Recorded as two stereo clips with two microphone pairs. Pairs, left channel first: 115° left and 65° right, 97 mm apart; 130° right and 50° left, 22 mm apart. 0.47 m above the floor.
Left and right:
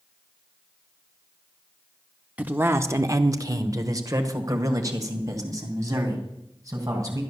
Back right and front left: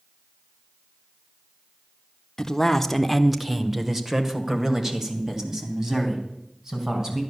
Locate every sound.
2.4 s a man speaking: 120° right, 0.8 m; by 7.2 s 10° right, 3.5 m